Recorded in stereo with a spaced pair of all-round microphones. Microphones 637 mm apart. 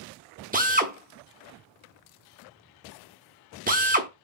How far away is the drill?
About 0.7 m.